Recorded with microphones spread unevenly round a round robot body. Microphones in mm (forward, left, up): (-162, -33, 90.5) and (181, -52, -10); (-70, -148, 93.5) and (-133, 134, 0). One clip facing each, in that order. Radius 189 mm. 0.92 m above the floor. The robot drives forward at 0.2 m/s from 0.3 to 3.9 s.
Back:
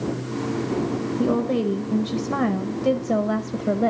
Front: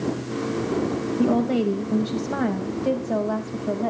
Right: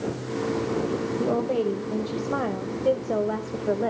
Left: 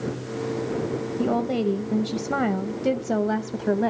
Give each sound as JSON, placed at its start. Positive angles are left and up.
{"t": 1.2, "sound": "a woman speaking", "azimuth_deg": 65, "distance_m": 0.6}